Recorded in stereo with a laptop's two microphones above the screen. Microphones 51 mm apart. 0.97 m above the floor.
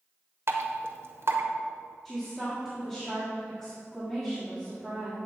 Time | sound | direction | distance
0.5 | dripping | 60° right (ahead or behind) | 1.1 m
2.0 | a woman speaking | 10° left (ahead or behind) | 1.8 m